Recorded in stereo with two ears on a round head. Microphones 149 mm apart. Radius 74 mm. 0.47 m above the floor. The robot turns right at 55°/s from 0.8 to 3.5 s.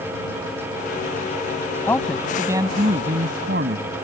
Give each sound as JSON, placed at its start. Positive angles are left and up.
{"t": 1.9, "sound": "a man speaking", "azimuth_deg": 165}